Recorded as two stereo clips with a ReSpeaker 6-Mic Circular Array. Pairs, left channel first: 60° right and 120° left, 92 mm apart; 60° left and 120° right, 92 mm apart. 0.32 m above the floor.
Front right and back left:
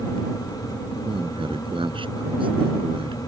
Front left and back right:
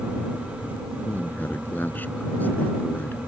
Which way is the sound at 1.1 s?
130° left.